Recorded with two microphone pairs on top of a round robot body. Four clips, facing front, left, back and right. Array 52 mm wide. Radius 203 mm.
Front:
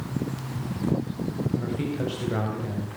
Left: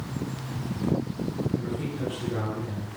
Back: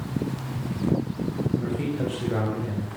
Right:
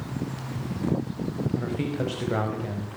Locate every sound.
1.6 s a man speaking: 90° right, 5 m